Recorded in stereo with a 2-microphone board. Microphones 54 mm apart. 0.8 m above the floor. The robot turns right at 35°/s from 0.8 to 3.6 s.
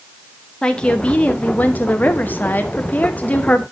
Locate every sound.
0.6 s a woman speaking: 30° left, 0.9 m; by 3.6 s 130° left, 0.9 m